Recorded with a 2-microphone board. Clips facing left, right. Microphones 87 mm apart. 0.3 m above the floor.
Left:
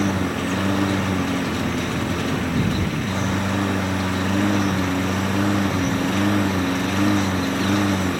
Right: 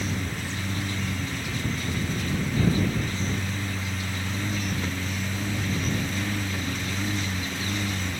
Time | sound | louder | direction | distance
0.0 | a lawn mower | left 10 dB | 70° left (ahead or behind) | ?